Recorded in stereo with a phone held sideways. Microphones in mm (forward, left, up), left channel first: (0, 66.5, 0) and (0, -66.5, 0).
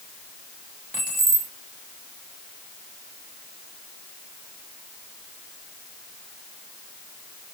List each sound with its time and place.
0.9 s keys jangling: 75° left (ahead or behind), 2 m